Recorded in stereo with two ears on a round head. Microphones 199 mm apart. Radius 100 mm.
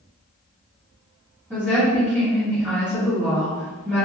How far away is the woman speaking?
About 1.8 m.